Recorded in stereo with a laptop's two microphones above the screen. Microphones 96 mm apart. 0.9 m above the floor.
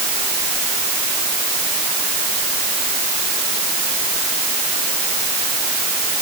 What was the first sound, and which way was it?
Only background noise.